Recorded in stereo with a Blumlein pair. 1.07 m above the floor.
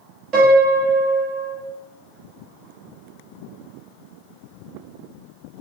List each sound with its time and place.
0.3 s a piano: 35° right, 1.4 m